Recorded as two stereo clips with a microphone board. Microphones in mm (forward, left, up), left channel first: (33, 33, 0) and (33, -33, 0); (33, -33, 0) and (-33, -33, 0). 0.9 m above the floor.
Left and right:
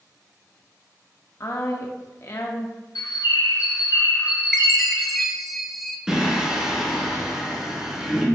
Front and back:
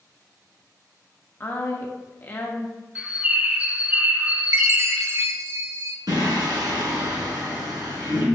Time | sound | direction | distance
1.4 | a woman speaking | 50° left | 1.0 m
3.0 | a bird | 110° left | 0.6 m
4.5 | a chime | straight behind | 0.6 m
6.1 | singing | 170° right | 2.5 m